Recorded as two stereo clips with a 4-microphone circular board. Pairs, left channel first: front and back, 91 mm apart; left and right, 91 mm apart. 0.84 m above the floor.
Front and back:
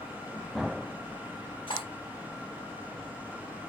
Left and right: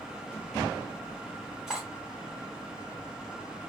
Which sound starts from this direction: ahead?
Cutlery clinking, at 1.7 s.